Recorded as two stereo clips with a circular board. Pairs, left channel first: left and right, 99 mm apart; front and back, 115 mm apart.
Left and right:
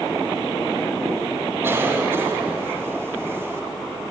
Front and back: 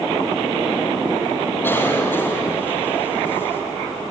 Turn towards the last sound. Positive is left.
turn(degrees=-50)